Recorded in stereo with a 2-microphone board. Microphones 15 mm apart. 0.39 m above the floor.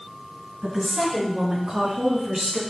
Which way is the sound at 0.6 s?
45° right (ahead or behind).